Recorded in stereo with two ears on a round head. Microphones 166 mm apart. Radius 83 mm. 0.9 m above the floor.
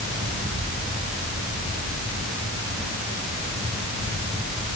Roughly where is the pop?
No pop in this recording.